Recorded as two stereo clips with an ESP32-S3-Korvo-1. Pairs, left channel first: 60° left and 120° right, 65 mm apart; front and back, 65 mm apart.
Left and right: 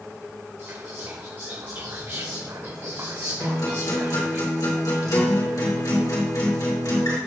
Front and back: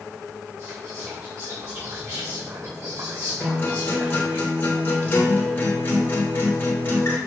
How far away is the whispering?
About 1.7 m.